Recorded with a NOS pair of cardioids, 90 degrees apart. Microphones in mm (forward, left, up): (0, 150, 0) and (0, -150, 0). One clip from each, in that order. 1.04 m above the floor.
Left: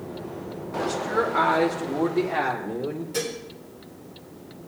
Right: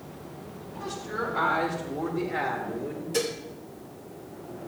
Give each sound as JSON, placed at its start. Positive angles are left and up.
{"t": 0.7, "sound": "a woman speaking", "azimuth_deg": 65, "distance_m": 1.8}
{"t": 3.1, "sound": "dishes clattering", "azimuth_deg": -15, "distance_m": 2.5}